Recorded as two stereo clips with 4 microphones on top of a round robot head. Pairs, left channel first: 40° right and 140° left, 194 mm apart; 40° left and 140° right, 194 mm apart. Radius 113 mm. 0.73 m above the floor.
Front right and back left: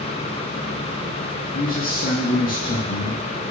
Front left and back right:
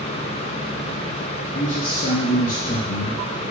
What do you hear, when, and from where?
1.5 s a man speaking: 5° right, 1.0 m